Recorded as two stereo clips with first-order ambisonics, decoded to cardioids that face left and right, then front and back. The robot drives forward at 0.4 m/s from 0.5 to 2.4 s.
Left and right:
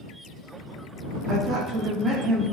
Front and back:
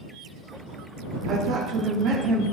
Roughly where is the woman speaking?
Behind right.